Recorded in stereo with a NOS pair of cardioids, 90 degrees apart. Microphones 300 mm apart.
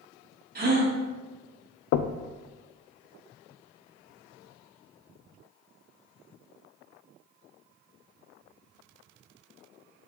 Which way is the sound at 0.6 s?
30° right.